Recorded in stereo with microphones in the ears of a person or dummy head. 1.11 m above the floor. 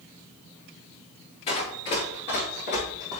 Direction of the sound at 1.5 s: 35° left (ahead or behind).